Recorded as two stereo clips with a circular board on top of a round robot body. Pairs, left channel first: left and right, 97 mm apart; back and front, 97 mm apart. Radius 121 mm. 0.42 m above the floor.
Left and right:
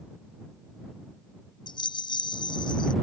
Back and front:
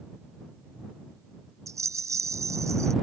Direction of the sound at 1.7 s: 55° left.